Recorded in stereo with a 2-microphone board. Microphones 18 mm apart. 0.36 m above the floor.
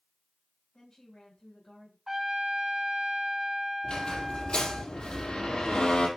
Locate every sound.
0.7 s a woman speaking: 40° left (ahead or behind), 1.6 m
2.1 s a trumpet: 25° right (ahead or behind), 1.1 m
3.8 s a squeak: 65° left (ahead or behind), 3 m